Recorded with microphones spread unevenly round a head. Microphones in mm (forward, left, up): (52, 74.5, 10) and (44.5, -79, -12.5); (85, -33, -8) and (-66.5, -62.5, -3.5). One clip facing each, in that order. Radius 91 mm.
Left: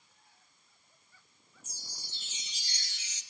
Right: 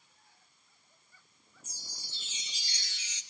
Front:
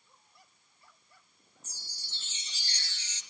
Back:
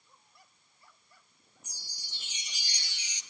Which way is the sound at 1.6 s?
90° right.